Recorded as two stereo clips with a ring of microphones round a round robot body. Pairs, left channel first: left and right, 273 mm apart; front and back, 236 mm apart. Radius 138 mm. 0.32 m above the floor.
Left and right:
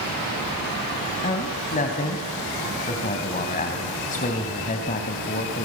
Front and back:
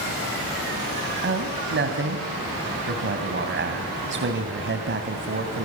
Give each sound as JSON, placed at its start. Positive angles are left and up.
{"t": 1.2, "sound": "a man speaking", "azimuth_deg": 150, "distance_m": 2.5}